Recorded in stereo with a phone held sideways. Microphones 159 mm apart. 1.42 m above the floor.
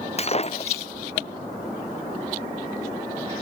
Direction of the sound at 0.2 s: 40° left (ahead or behind).